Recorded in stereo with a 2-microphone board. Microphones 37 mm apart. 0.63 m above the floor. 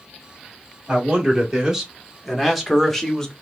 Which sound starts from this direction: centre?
A man speaking, at 0.9 s.